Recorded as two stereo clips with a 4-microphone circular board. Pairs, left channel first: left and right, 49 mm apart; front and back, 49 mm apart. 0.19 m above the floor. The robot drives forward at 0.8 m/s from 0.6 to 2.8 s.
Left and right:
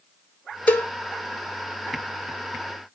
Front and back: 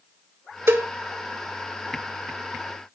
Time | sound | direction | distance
0.7 | a cowbell | 140° left | 0.9 m